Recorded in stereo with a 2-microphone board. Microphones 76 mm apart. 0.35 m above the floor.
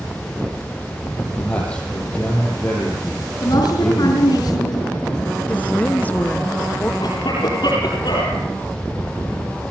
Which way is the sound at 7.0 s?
65° left (ahead or behind).